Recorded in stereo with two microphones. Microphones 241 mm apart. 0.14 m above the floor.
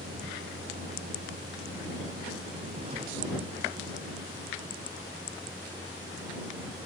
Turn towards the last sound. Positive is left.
turn(degrees=-10)  # may be behind; listen again after turning